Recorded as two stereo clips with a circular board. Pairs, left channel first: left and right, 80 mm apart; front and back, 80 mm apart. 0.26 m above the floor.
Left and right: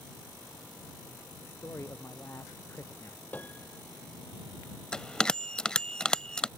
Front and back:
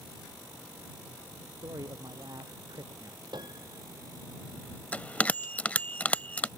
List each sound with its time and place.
1.4 s a man speaking: 145° left; by 3.2 s 150° left
3.3 s a piano: 160° left
4.9 s a bell: 25° left